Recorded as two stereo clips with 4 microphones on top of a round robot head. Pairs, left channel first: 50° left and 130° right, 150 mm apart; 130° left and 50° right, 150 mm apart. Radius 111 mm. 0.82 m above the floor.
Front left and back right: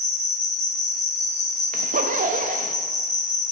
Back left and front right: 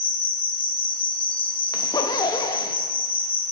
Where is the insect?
80° left, 1.4 m.